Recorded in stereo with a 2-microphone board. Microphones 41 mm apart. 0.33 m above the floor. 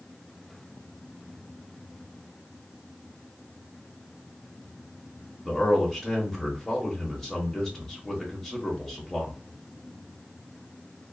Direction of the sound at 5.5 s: 10° left (ahead or behind).